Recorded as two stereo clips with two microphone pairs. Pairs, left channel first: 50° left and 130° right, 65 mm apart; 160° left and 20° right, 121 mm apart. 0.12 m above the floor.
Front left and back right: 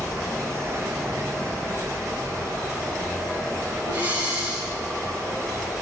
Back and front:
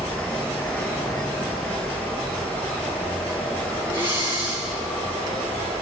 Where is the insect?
125° right, 3 m.